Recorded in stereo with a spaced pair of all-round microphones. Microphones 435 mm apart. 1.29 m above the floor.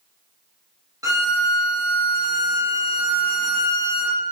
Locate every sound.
1.0 s a violin: 10° right (ahead or behind), 1.3 m